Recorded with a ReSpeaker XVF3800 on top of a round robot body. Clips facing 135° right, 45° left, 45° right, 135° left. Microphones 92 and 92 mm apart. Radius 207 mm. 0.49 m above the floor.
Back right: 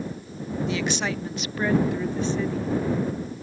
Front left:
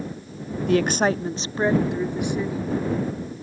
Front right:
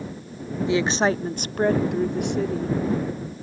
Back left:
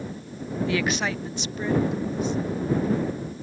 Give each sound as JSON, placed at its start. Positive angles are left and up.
{"t": 0.7, "sound": "a woman speaking", "azimuth_deg": 25}